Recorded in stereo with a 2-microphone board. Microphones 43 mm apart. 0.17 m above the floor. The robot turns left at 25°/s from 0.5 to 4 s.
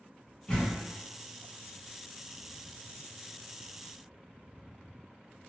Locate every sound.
0.5 s a door slam: 20° left (ahead or behind), 1.2 m; by 0.8 s 15° left (ahead or behind), 1.2 m